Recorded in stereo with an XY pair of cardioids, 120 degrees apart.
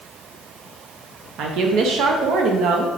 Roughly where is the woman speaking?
Right.